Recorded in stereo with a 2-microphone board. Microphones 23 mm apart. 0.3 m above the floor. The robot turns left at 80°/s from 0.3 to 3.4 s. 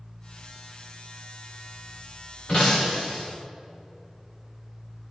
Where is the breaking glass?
135° left, 8.5 m; by 3.2 s 75° left, 8.5 m.